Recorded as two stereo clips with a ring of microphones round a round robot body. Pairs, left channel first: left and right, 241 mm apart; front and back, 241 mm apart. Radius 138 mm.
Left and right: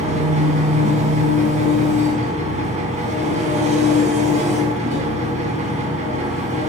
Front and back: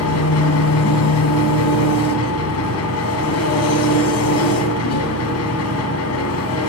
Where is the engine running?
25° right, 1.7 m.